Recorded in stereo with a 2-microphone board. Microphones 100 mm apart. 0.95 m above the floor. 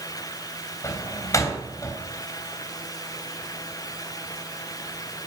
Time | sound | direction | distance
0.8 | a door slam | 30° left (ahead or behind) | 3.5 m